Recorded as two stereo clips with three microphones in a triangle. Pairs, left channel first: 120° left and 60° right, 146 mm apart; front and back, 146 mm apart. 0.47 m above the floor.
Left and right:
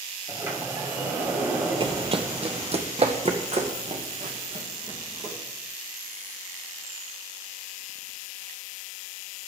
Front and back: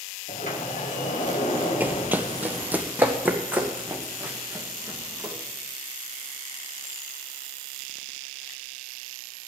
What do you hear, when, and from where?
0.3 s a sliding door: 10° left, 2.5 m
1.8 s running footsteps: 105° right, 0.7 m; by 5.3 s 100° right, 3.5 m